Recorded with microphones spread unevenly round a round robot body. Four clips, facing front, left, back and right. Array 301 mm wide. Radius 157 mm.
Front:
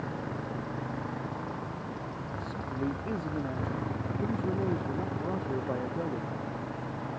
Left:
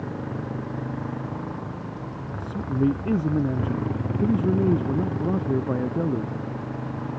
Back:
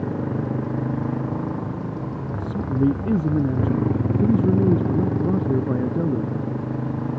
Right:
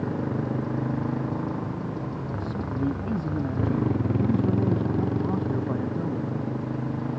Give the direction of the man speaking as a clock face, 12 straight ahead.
6 o'clock.